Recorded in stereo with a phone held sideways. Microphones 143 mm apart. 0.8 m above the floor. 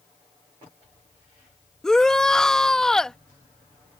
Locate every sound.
1.8 s a shout: 5° left (ahead or behind)